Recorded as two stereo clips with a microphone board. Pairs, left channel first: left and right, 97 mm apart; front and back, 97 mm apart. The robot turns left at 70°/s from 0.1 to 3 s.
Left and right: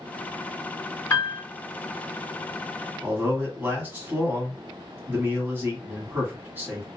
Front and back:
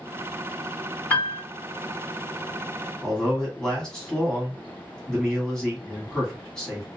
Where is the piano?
65° left, 1.9 m; by 1.4 s 45° left, 1.9 m.